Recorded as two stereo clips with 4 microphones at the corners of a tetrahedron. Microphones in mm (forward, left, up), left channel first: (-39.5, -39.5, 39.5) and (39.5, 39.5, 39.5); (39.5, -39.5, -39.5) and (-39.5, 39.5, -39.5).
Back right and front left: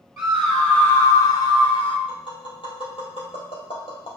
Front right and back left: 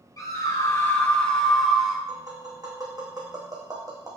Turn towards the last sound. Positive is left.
turn(degrees=-170)